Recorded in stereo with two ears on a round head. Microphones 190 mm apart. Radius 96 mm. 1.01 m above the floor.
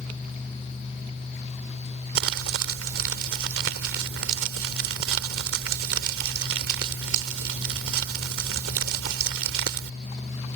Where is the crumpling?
65° right (ahead or behind).